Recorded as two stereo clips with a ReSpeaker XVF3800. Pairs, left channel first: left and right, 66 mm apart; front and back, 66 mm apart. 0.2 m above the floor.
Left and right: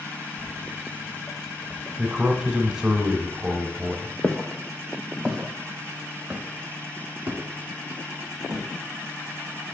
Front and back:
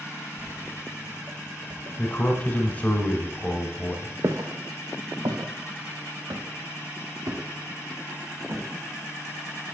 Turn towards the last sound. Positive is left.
turn(degrees=-145)